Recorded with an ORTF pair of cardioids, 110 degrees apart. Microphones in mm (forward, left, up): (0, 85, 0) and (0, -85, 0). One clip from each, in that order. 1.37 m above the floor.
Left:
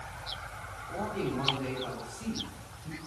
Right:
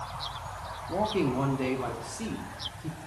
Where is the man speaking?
65° right, 2.5 m; by 3.0 s 75° right, 4 m.